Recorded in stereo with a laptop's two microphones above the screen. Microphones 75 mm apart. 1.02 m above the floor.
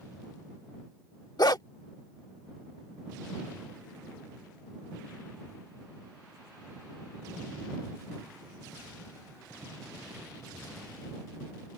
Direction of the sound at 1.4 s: 60° left (ahead or behind).